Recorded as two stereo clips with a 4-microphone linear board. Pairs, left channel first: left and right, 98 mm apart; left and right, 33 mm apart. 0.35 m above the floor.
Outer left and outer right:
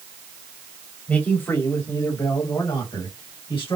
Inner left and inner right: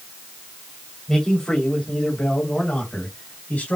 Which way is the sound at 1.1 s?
15° left (ahead or behind).